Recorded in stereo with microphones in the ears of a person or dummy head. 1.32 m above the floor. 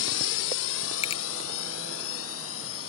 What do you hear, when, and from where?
0.0 s a drone: 70° left (ahead or behind); by 2.9 s 80° left
1.0 s a finger snap: 35° left (ahead or behind)